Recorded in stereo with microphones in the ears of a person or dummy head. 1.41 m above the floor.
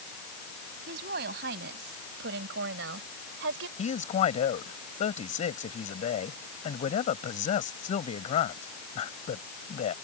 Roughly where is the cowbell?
I don't hear a cowbell.